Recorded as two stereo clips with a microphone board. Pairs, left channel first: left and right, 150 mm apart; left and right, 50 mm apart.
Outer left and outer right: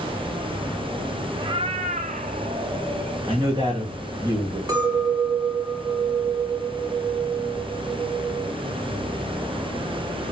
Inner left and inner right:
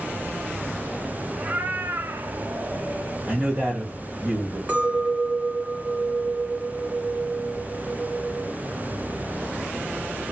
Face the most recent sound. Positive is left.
turn(degrees=-25)  # may be behind; listen again after turning